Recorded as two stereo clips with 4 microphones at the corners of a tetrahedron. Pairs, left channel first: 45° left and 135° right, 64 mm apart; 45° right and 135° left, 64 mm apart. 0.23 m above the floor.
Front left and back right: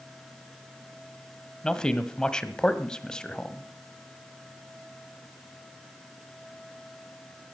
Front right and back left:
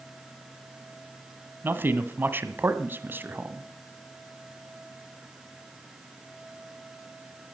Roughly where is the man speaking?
Behind left.